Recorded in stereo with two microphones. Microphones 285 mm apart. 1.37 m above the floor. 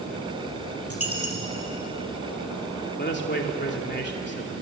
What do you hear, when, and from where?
0.9 s a dropped coin: 55° left (ahead or behind), 4.5 m
3.0 s a man speaking: 40° left (ahead or behind), 3 m